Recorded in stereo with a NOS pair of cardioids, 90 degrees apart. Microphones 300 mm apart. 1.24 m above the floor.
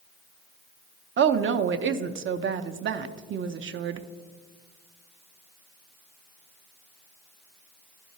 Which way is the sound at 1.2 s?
40° right.